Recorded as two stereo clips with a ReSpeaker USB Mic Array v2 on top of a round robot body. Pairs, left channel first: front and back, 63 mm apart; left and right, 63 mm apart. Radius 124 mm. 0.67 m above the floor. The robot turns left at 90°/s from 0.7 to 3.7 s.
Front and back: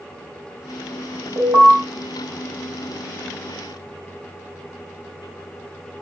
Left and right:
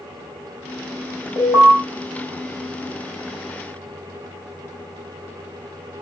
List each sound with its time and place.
1.4 s an alarm: 145° left, 4 m; by 1.7 s 115° left, 4 m